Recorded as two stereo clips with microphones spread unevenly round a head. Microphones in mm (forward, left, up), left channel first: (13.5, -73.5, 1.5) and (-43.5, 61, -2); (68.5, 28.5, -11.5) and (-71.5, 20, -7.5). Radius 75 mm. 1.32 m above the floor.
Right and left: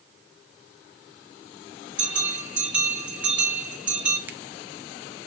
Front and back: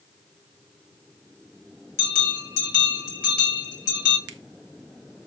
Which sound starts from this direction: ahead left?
A bell, at 2.0 s.